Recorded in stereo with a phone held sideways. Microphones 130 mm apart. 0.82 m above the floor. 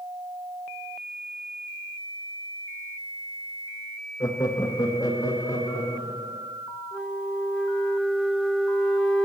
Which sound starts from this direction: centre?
A flute, at 6.9 s.